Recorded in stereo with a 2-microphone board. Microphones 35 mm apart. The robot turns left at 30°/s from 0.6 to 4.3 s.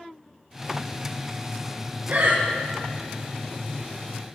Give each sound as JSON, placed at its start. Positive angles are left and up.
{"t": 2.1, "sound": "breathing", "side_deg": -60, "distance_m": 1.1}